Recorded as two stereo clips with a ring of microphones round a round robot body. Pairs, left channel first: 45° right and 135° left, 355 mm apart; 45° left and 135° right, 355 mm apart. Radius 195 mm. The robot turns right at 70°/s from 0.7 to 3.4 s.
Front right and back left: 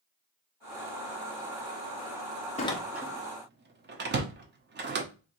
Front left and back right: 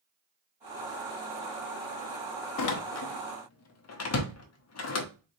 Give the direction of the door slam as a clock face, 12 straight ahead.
11 o'clock.